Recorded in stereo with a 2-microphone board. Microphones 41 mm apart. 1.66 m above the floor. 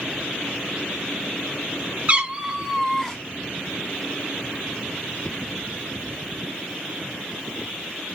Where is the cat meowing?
30° right (ahead or behind), 1.3 m; by 3.2 s 15° left (ahead or behind), 1.2 m.